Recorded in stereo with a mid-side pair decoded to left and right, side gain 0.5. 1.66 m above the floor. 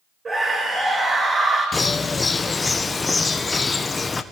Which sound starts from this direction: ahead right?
A scream, at 0.2 s.